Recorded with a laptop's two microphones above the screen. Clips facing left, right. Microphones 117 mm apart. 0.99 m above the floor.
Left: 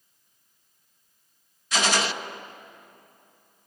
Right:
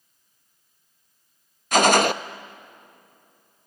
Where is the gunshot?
55° right (ahead or behind), 0.5 m.